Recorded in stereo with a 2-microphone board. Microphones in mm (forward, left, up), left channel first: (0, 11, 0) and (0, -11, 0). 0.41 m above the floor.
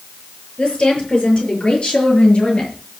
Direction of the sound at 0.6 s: 40° left (ahead or behind).